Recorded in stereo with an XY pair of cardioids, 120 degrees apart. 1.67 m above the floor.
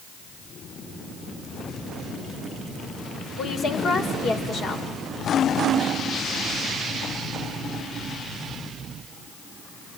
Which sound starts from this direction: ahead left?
A woman speaking, at 3.4 s.